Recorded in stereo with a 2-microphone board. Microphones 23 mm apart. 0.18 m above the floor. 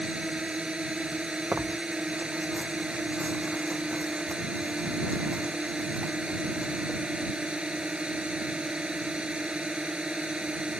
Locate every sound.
0.0 s a drone: 45° right (ahead or behind)
1.5 s tearing paper: 85° right